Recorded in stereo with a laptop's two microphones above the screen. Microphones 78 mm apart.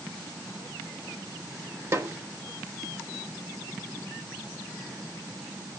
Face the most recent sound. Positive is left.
turn(degrees=-35)  # may be behind; listen again after turning